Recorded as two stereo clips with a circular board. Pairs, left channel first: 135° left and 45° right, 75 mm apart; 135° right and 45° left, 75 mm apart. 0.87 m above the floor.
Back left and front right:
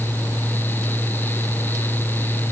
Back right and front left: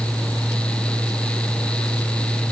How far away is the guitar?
I don't hear a guitar.